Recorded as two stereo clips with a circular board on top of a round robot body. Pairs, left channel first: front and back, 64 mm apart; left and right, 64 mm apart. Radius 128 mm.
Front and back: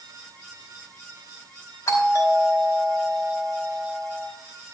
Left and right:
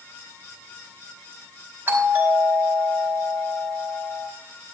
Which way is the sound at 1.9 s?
30° right.